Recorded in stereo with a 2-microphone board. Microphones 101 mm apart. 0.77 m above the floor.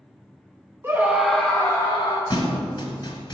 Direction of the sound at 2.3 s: 45° left (ahead or behind).